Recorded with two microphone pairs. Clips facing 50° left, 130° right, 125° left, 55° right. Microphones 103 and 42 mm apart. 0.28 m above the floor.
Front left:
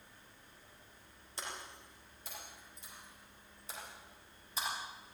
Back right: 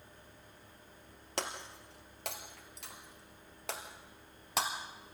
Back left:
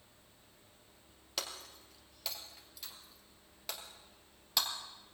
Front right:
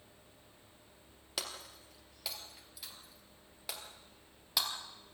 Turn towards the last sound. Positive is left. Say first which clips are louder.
# back right 6 dB, even
turn(degrees=-140)